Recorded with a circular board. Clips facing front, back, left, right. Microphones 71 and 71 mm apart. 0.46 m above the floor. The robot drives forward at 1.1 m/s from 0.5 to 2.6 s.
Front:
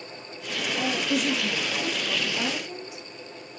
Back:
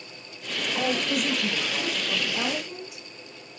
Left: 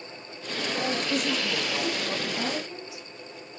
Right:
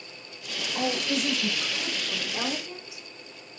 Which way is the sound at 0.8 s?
145° right.